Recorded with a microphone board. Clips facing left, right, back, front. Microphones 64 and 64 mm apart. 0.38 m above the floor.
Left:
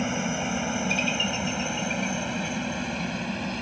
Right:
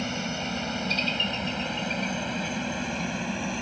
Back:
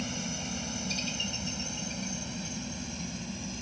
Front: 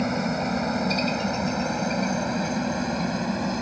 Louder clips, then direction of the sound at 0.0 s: Left 3 dB, front 12 dB; 20° left.